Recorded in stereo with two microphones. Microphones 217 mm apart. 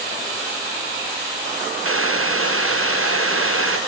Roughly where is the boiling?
Right.